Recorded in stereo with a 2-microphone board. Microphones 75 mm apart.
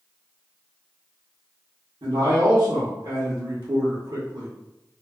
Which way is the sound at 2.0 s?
70° right (ahead or behind).